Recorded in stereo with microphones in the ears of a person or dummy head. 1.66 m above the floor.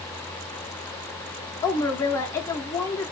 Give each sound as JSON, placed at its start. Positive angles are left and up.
{"t": 1.6, "sound": "a woman speaking", "side_deg": 15, "distance_m": 0.5}